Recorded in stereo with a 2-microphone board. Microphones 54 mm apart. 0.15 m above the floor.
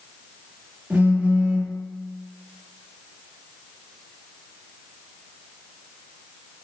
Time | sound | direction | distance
0.9 | a phone buzzing | 20° right (ahead or behind) | 3 m